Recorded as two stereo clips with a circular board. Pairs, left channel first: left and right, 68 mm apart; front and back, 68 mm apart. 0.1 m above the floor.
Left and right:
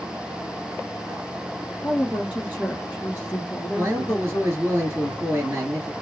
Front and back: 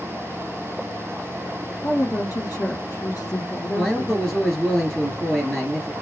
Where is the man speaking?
65° right, 2 m.